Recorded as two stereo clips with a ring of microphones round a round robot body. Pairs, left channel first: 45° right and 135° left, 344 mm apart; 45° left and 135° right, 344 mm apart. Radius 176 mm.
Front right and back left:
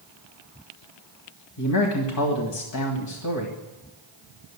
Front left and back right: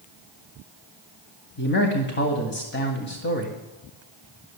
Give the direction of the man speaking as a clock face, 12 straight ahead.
12 o'clock.